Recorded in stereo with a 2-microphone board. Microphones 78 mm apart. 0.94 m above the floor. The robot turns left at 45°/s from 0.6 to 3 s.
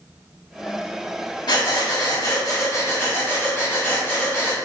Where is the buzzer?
I don't hear a buzzer.